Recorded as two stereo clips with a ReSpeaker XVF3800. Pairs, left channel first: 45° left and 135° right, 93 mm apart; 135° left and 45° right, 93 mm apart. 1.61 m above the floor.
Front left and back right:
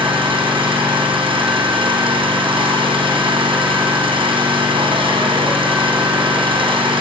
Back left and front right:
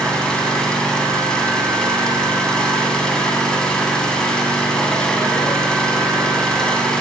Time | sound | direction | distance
0.0 | an engine running | 145° right | 4 m